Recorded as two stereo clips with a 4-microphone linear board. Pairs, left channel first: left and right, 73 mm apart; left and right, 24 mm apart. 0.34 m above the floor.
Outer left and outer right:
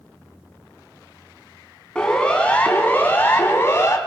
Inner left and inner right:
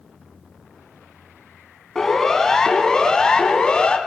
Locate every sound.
1.9 s a siren: 10° left (ahead or behind), 5 m; by 4.0 s 35° left (ahead or behind), 4 m